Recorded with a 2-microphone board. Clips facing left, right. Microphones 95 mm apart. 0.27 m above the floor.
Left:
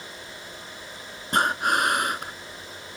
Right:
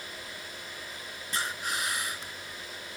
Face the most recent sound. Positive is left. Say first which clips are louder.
# left 12 dB
turn(degrees=60)  # may be behind; listen again after turning